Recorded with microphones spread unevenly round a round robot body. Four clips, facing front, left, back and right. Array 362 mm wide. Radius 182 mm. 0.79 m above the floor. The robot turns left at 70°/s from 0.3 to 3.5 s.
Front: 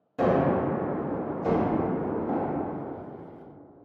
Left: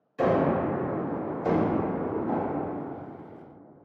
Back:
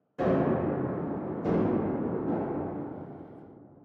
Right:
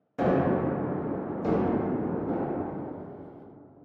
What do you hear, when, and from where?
0.2 s a gunshot: 45° right, 1.5 m; by 2.6 s 155° left, 1.5 m